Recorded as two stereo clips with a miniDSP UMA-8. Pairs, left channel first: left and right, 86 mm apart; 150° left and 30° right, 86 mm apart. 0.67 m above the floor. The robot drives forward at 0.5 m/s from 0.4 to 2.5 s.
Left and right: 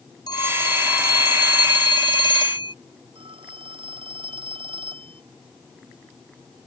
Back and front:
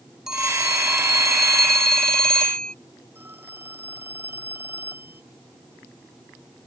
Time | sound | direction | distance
0.3 | a phone ringing | 55° left | ?
3.1 | a phone ringing | 95° right | ?